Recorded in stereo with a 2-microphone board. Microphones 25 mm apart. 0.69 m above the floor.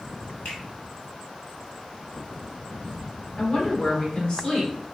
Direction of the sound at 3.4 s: 40° left (ahead or behind).